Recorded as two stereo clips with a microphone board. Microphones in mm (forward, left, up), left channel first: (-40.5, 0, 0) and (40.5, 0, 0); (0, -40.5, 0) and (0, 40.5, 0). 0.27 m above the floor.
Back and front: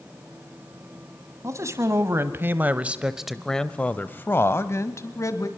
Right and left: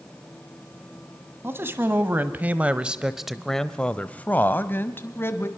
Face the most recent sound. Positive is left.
turn(degrees=-140)